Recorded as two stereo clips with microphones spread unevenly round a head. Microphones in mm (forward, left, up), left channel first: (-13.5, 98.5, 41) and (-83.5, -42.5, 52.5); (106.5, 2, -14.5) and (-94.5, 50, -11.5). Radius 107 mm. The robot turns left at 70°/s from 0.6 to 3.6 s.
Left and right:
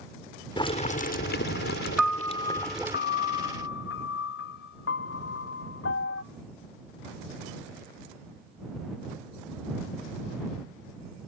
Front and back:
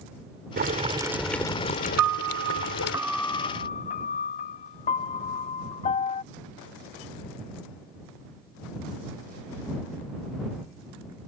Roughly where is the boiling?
Behind left.